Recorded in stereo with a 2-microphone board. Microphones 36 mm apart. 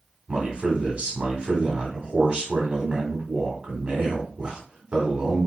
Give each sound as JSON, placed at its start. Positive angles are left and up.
{"t": 0.3, "sound": "a man speaking", "side_deg": -30, "distance_m": 1.3}